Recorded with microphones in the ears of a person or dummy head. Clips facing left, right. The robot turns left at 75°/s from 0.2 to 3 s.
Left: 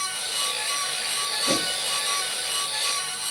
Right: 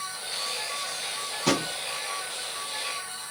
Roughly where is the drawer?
Right.